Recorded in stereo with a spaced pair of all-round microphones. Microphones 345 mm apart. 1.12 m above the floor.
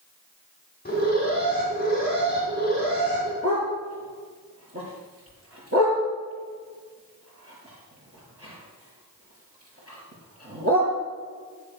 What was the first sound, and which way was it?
An alarm, 25° left (ahead or behind).